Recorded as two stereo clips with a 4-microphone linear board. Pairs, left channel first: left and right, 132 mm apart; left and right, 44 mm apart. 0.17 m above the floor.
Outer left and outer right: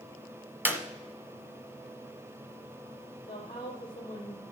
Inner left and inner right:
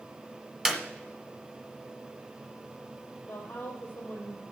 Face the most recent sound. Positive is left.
turn(degrees=35)  # may be behind; listen again after turning